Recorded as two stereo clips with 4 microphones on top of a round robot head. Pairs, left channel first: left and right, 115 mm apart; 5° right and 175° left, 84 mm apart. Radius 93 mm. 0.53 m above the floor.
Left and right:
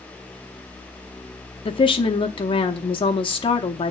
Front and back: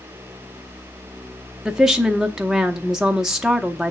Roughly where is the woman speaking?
Left.